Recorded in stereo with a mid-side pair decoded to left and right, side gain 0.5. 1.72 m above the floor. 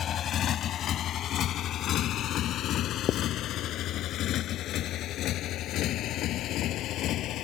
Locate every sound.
0.0 s a motorcycle: 55° left; by 7.5 s 70° left
3.1 s writing: 60° left